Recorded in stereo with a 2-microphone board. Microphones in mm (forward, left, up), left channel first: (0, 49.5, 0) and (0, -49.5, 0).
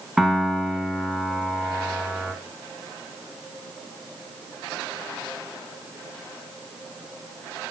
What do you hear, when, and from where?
0.2 s a piano: centre (ahead or behind), 2.0 m